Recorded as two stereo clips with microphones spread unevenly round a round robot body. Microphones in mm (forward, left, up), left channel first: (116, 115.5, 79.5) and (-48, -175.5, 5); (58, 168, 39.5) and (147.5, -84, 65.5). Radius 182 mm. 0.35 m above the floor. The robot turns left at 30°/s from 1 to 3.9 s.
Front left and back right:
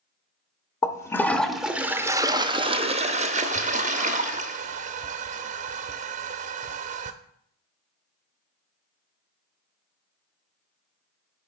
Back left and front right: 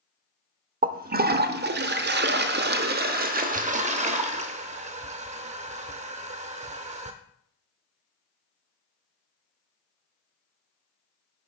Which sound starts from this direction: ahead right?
A toilet flushing, at 0.8 s.